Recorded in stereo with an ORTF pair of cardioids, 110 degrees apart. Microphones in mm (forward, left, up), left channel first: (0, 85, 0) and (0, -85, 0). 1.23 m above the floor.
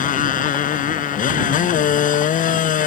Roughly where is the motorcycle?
Ahead left.